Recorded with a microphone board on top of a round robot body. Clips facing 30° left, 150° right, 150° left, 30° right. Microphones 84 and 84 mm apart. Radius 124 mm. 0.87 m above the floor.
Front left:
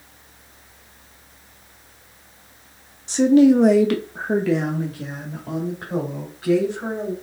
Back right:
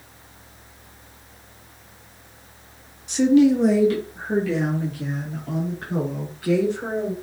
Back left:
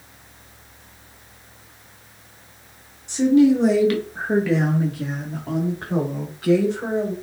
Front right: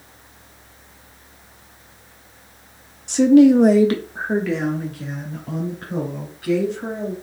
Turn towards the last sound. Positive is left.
turn(degrees=100)